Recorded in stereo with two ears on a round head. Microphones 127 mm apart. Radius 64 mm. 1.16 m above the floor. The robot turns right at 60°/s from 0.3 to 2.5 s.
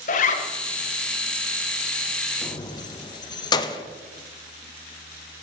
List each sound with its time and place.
0.1 s a zipper: 60° left (ahead or behind), 1.6 m; by 0.5 s 50° left (ahead or behind), 1.6 m
2.4 s keys jangling: 25° left (ahead or behind), 0.7 m; by 3.8 s 30° left (ahead or behind), 0.7 m